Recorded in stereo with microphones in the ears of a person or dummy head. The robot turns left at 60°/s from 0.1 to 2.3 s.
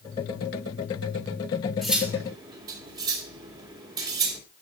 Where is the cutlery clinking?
Centre (ahead or behind), 2.5 m; by 4.4 s 30° right (ahead or behind), 2.5 m.